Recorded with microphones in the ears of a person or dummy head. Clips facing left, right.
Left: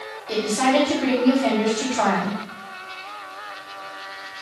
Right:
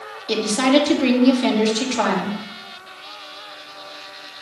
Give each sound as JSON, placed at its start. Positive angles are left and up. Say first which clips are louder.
{"t": 0.3, "sound": "a woman speaking", "louder": "right 3 dB", "side_deg": -50, "distance_m": 2.5}